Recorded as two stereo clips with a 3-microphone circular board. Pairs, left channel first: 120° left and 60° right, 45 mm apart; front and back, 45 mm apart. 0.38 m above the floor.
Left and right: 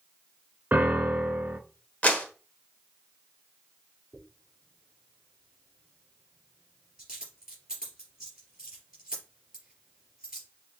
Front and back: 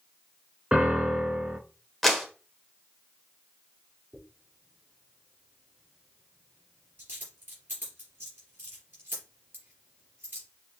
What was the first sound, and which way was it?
A piano, 110° right.